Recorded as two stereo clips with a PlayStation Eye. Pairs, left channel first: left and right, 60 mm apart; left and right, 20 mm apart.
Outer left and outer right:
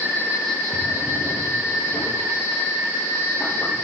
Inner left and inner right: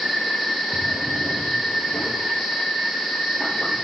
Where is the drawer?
50° left (ahead or behind), 4.5 m.